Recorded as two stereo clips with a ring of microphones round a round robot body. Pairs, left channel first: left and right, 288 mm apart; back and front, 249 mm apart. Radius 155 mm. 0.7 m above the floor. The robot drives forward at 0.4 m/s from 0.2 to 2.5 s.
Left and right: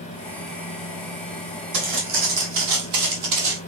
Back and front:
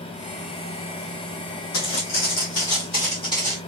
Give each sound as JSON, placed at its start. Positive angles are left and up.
{"t": 1.7, "sound": "footsteps", "azimuth_deg": -135, "distance_m": 1.3}